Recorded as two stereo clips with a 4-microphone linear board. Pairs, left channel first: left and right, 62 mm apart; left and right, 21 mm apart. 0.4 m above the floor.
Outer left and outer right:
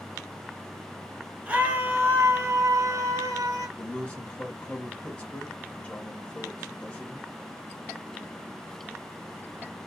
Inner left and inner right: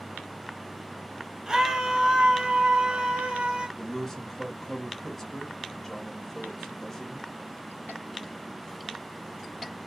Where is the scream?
20° right (ahead or behind), 1.1 m; by 3.7 s 55° right (ahead or behind), 1.5 m.